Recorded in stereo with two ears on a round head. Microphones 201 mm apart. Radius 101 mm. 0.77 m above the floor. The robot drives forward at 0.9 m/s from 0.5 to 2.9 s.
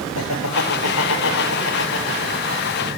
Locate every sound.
0.1 s laughter: 75° left (ahead or behind), 3.5 m; by 3.0 s 55° left (ahead or behind), 4 m